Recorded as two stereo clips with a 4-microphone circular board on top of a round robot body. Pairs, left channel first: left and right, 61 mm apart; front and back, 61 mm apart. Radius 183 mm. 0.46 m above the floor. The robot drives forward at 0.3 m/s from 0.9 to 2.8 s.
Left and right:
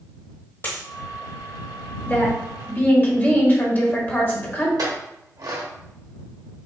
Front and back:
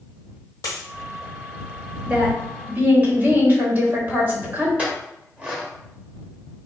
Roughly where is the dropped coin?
Ahead left.